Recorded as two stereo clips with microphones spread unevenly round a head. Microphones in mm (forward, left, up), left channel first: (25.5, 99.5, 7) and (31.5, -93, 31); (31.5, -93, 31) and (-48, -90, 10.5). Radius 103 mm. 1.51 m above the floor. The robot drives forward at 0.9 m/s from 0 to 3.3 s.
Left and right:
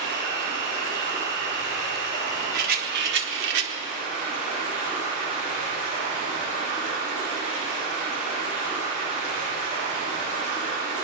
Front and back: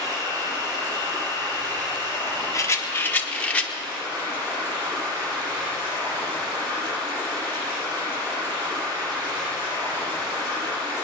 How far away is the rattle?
About 1.7 m.